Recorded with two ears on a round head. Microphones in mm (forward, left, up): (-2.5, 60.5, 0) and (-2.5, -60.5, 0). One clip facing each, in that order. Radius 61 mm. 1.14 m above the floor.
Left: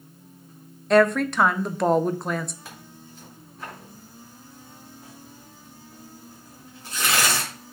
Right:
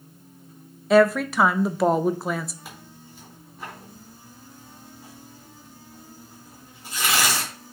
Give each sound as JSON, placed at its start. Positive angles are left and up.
{"t": 0.9, "sound": "a woman speaking", "side_deg": -5, "distance_m": 0.5}
{"t": 2.6, "sound": "tearing paper", "side_deg": -5, "distance_m": 3.5}